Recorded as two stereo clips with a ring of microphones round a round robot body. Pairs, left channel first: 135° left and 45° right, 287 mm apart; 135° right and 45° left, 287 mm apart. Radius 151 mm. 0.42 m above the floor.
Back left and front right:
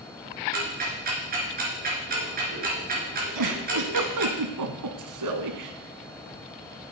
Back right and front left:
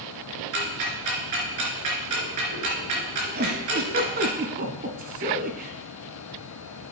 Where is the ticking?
15° left, 3.5 m.